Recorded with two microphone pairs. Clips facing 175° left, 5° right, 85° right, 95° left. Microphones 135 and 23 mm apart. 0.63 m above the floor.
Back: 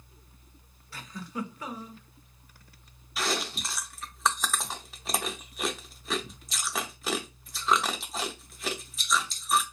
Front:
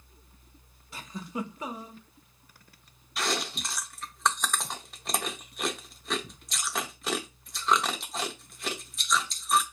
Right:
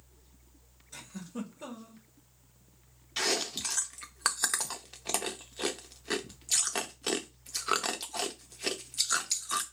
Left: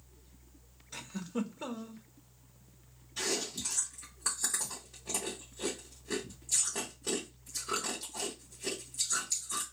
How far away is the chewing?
About 0.5 m.